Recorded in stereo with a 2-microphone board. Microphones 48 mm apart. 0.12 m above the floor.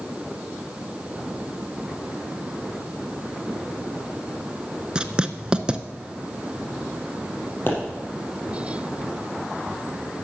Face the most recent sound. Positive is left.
turn(degrees=45)  # may be behind; listen again after turning